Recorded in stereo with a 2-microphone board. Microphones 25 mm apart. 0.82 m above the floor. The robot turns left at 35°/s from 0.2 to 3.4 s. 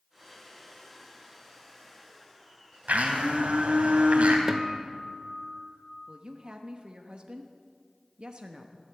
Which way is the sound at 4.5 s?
25° right (ahead or behind).